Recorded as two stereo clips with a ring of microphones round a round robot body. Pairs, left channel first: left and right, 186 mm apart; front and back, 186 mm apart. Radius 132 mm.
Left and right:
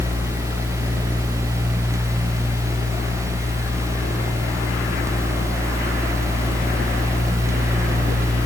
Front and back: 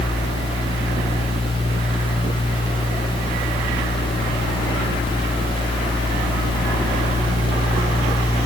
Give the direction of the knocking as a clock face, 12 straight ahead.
No knocking in this recording.